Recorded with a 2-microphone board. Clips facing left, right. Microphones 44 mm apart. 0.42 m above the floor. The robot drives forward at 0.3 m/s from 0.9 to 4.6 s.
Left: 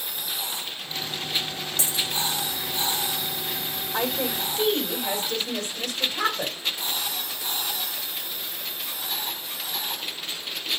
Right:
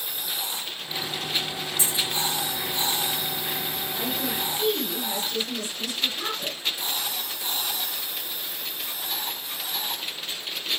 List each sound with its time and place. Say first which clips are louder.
1.8 s a dropped coin: even; 75° left (ahead or behind), 5 m
3.9 s a woman speaking: left 4 dB; 60° left (ahead or behind), 3 m; by 6.6 s 55° left (ahead or behind), 3 m